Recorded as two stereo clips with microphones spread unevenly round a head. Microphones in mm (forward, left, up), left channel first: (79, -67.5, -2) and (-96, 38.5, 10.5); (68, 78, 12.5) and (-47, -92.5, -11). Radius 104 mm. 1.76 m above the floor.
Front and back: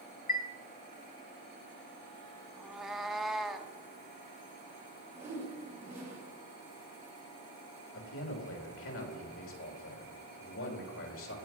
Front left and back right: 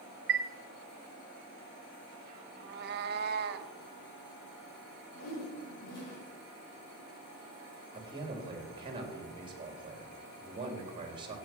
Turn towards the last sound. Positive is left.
turn(degrees=-55)